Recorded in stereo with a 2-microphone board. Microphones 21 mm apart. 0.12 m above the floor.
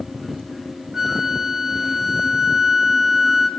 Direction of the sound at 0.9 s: 20° right (ahead or behind).